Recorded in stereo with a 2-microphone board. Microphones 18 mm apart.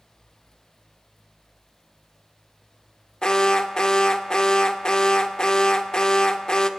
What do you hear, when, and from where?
3.2 s an alarm: 55° left (ahead or behind), 1.6 m